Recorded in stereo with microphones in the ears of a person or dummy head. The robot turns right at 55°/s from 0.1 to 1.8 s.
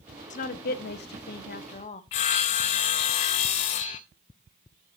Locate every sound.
0.3 s a woman speaking: 55° left, 0.7 m; by 2.0 s 135° left, 0.7 m
2.1 s sawing: 30° left (ahead or behind), 0.5 m